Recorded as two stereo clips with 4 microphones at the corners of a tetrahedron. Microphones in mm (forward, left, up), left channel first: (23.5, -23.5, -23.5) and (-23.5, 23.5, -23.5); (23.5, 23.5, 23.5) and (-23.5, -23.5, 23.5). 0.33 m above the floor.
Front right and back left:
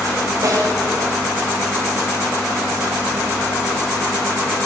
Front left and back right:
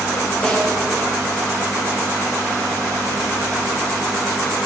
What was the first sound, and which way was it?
A snare drum, 110° left.